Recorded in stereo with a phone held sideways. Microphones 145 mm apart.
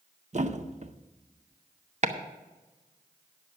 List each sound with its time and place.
0.3 s a thud: 55° right (ahead or behind), 0.7 m
2.0 s chopping: 55° right (ahead or behind), 1.0 m